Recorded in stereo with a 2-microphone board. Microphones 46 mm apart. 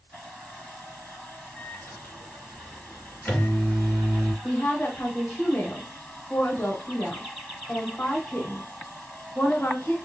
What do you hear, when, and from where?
1.6 s a microwave: 30° left (ahead or behind), 2.5 m
4.4 s a woman speaking: 40° left (ahead or behind), 1.3 m